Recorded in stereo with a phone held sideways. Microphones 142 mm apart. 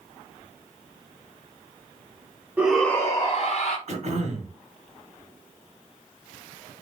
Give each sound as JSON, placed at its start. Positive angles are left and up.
{"t": 2.6, "sound": "a shout", "side_deg": -10, "distance_m": 0.6}
{"t": 3.9, "sound": "throat clearing", "side_deg": -50, "distance_m": 1.4}